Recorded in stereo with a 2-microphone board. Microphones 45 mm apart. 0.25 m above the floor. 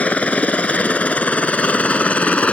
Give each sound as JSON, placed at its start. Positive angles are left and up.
{"t": 0.0, "sound": "a helicopter", "side_deg": 30}